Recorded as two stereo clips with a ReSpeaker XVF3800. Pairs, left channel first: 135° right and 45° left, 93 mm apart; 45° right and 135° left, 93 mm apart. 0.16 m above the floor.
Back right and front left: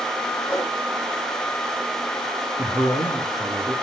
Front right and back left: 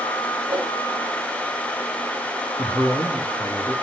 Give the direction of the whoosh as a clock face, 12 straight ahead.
8 o'clock.